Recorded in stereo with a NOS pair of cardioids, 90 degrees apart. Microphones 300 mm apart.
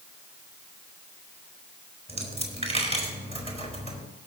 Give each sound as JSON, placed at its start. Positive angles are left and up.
{"t": 2.1, "sound": "a dropped coin", "azimuth_deg": -20, "distance_m": 3.5}